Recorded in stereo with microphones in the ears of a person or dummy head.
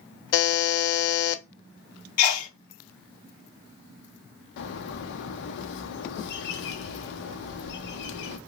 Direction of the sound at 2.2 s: 85° left.